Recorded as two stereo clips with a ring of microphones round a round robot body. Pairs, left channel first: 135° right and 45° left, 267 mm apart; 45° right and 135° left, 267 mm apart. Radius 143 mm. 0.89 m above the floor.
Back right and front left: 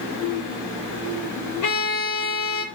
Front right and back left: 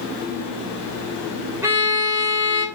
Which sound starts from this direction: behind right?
A violin, at 1.6 s.